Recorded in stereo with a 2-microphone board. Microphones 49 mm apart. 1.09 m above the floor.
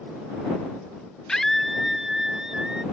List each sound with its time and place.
1.3 s a scream: 15° left (ahead or behind); by 2.8 s 15° right (ahead or behind)